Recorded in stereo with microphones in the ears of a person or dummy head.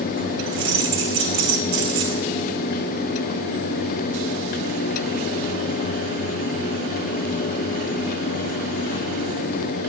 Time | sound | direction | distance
0.5 | keys jangling | 65° right (ahead or behind) | 1.1 m